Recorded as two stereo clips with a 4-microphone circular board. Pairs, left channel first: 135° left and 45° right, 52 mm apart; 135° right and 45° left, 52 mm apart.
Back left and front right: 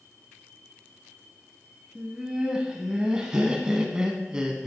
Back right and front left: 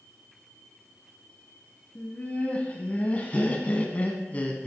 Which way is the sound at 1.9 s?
105° right.